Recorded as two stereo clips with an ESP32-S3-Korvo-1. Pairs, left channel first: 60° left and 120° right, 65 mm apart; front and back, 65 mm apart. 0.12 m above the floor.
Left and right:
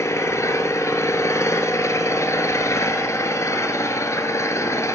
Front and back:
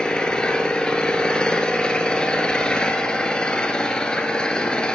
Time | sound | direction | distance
0.0 | an engine running | 75° left | 1.0 m